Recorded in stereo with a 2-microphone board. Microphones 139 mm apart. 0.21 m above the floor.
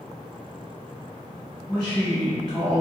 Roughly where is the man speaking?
Centre.